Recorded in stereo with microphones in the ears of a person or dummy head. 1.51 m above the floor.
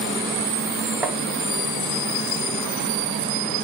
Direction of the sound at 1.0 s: 5° right (ahead or behind).